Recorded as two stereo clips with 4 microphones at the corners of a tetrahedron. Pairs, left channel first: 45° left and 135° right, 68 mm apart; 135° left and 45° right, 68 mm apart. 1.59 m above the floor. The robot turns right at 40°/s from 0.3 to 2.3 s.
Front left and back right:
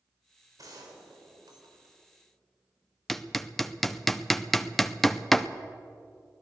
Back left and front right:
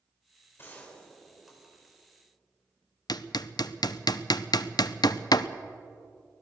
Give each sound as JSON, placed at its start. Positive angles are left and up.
{"t": 0.6, "sound": "a gunshot", "azimuth_deg": -170, "distance_m": 4.0}
{"t": 3.1, "sound": "hammering", "azimuth_deg": 135, "distance_m": 0.7}